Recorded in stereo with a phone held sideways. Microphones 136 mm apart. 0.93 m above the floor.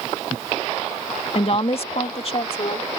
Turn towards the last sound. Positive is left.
turn(degrees=45)  # may be behind; listen again after turning